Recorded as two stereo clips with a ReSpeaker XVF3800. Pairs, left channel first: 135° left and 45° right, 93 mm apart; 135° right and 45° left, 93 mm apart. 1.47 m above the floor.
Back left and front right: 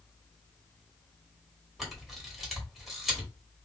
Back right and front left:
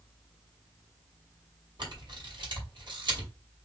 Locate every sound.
1.8 s a camera shutter: 45° left, 1.8 m